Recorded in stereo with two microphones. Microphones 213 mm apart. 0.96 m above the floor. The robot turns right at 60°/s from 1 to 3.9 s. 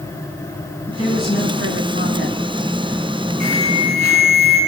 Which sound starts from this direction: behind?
An alarm, at 3.4 s.